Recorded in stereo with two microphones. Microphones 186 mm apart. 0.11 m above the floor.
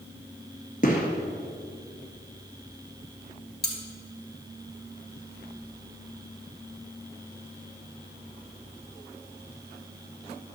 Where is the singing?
No singing in this recording.